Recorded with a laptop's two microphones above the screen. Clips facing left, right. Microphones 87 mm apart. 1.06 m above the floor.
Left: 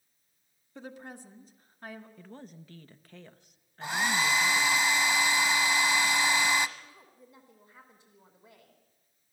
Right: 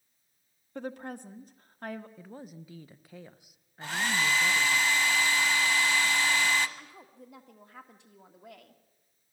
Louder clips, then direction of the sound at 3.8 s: Left 1 dB; 15° left (ahead or behind).